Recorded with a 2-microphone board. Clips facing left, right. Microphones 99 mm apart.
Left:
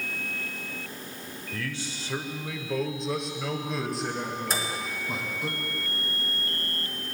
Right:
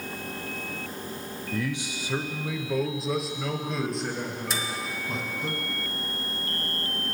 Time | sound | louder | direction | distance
1.5 | a man speaking | right 5 dB | 20° right (ahead or behind) | 0.9 m
4.5 | a microwave | left 1 dB | 40° left (ahead or behind) | 1.5 m